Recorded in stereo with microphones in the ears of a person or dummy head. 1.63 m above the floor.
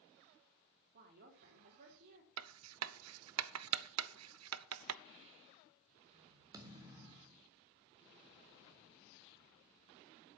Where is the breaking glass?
No breaking glass in this recording.